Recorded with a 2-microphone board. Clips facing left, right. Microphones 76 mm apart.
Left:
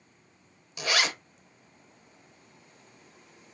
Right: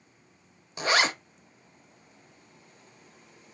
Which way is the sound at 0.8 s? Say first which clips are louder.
Right 4 dB; 30° right (ahead or behind).